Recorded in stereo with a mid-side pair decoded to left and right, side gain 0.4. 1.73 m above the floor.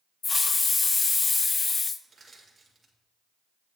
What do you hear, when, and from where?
0.2 s a hiss: 35° left, 0.5 m
2.0 s crushing: 25° right, 2.5 m